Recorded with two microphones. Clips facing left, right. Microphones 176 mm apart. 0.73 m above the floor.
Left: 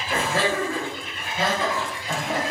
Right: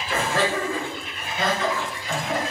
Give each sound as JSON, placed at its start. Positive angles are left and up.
{"t": 0.1, "sound": "laughter", "side_deg": 25, "distance_m": 1.7}